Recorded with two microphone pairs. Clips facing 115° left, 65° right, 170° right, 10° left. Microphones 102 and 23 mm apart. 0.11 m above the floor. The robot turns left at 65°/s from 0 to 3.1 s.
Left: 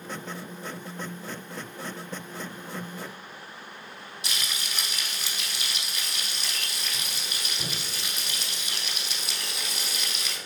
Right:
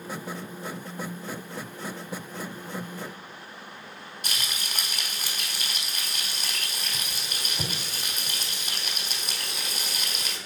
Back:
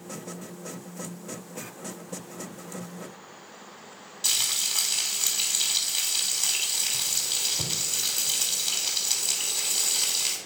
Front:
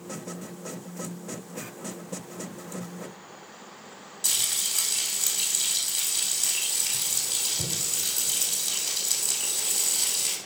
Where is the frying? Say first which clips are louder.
Even, back 1 dB; 105° right, 3 m.